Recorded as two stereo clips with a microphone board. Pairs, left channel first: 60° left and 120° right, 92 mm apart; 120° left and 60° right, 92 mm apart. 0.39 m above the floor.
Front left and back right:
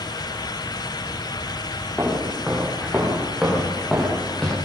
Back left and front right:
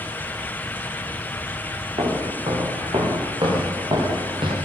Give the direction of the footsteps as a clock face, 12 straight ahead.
1 o'clock.